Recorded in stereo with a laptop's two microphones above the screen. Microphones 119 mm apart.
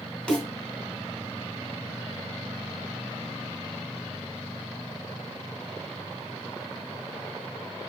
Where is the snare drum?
5° left (ahead or behind), 2.5 m.